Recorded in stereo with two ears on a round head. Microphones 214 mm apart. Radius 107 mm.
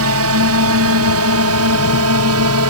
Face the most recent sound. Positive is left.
turn(degrees=-70)  # may be behind; listen again after turning